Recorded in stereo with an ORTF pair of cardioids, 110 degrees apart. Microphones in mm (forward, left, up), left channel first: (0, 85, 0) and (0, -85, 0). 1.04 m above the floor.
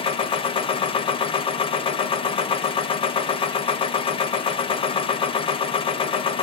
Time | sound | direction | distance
0.0 | a machine running | 35° left | 0.8 m